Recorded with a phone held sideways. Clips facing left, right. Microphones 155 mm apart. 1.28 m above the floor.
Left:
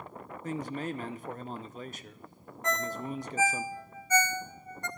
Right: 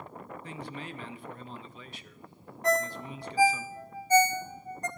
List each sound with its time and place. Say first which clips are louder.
0.4 s a man speaking: left 9 dB; 45° left (ahead or behind), 0.7 m
2.6 s a ringtone: right 5 dB; 35° right (ahead or behind), 0.7 m